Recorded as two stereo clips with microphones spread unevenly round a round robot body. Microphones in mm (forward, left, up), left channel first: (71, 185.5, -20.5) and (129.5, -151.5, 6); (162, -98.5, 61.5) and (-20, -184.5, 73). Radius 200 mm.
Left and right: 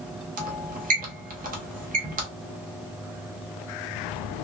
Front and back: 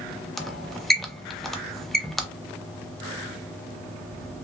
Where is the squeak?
50° right, 0.6 m.